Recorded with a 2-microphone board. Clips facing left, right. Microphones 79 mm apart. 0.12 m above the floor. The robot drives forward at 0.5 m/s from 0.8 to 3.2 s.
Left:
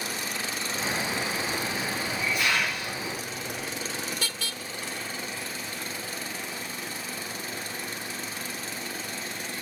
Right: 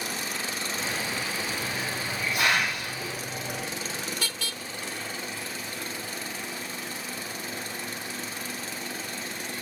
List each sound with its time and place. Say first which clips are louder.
1.6 s a hiss: left 1 dB; 75° right (ahead or behind), 5.5 m; by 3.6 s 70° right (ahead or behind), 5.5 m